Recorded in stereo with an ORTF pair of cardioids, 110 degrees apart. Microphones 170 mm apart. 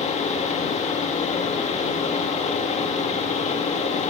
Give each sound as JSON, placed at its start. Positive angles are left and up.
{"t": 0.0, "sound": "a fan", "azimuth_deg": 40, "distance_m": 2.0}